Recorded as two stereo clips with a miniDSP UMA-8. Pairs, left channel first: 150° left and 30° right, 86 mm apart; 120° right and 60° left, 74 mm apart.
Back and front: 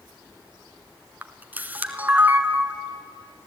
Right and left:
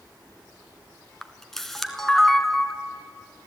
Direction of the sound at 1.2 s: 45° right.